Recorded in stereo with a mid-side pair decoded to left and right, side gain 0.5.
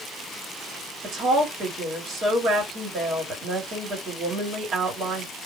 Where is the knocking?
I don't hear knocking.